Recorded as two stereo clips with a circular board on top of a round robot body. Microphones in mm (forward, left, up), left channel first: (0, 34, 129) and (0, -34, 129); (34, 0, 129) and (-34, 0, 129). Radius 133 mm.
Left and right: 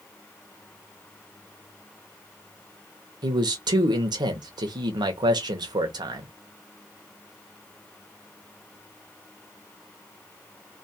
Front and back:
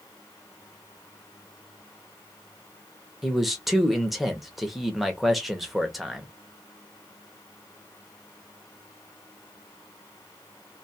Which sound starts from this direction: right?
A man speaking, at 3.2 s.